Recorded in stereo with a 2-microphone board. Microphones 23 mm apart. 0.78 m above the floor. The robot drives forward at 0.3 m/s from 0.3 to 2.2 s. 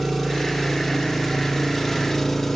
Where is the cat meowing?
No cat meowing in this recording.